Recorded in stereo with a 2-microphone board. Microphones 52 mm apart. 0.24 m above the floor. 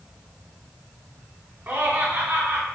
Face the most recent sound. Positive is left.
turn(degrees=-40)  # may be behind; listen again after turning